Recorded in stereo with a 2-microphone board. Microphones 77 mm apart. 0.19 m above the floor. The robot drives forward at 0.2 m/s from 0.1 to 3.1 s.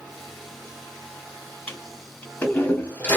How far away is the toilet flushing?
About 1.9 m.